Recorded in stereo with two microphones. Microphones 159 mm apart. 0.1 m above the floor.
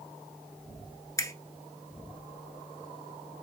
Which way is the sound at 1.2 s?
20° left (ahead or behind).